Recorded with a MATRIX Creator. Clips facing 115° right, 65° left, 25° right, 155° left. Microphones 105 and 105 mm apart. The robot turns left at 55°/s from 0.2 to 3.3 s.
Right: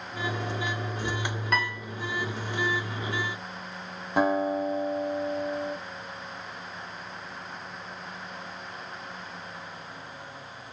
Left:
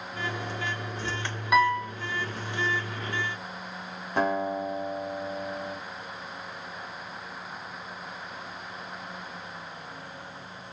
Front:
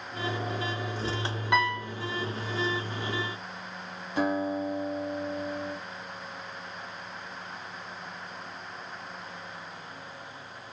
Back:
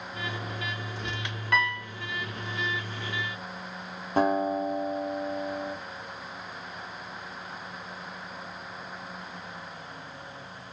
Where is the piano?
5° left, 0.6 m; by 1.9 s 15° right, 0.6 m.